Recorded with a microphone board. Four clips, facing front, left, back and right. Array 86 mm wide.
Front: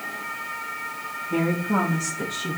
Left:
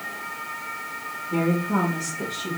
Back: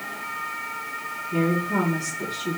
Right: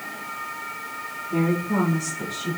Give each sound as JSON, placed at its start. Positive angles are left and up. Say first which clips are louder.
{"t": 1.3, "sound": "a woman speaking", "louder": "even, even", "azimuth_deg": 10, "distance_m": 7.5}